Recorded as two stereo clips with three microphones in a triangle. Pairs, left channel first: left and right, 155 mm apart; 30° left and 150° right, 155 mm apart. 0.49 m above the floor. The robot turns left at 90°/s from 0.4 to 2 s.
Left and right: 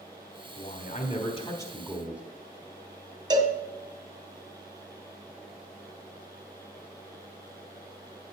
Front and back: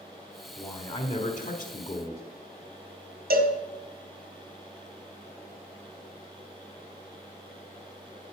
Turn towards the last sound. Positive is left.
turn(degrees=-155)